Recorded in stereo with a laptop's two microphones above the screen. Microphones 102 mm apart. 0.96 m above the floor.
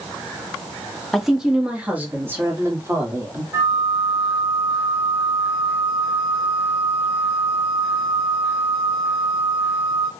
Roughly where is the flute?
Right.